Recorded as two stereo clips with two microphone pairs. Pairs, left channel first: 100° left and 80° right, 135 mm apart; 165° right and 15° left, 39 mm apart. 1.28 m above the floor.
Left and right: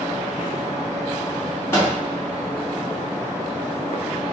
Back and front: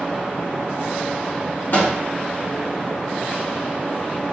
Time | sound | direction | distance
1.7 | a microwave | 170° left | 1.5 m